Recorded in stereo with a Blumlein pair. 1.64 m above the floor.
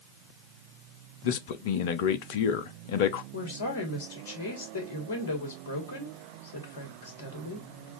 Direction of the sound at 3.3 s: 55° left.